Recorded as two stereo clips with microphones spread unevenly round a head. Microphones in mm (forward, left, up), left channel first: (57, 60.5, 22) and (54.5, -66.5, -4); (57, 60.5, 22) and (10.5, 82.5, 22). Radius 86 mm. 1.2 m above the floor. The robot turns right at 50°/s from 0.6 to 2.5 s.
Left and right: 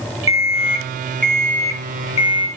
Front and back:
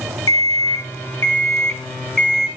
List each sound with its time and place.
0.3 s an alarm clock: 25° right, 6.5 m; by 2.5 s 70° left, 6.5 m